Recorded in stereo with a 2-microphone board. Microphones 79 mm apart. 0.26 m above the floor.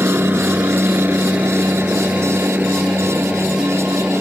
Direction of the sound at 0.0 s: 20° right (ahead or behind).